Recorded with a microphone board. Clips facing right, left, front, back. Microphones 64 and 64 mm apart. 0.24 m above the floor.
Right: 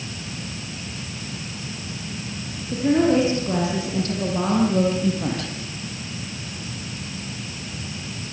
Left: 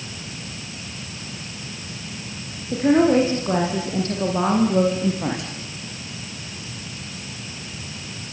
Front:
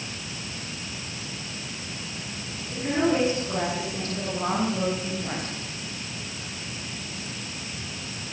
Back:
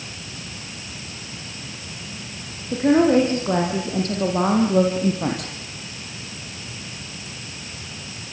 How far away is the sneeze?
I don't hear a sneeze.